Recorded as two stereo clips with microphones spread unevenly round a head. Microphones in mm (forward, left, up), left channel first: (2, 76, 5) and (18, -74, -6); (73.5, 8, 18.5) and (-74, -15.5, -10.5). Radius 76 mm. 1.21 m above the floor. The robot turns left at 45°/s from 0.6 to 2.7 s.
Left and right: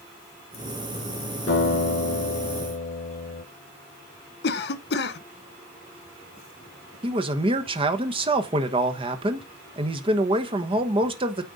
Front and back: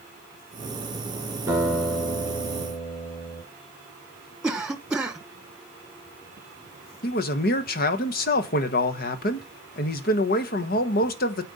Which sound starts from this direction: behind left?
A guitar, at 1.5 s.